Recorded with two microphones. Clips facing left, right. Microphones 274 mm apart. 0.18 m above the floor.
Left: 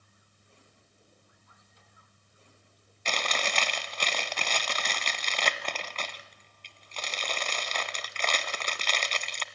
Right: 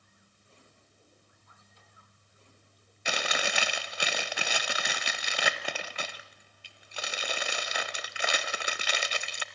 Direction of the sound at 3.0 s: 10° right (ahead or behind).